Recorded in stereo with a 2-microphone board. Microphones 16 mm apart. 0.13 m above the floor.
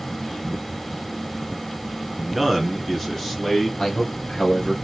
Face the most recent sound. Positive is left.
turn(degrees=55)  # may be behind; listen again after turning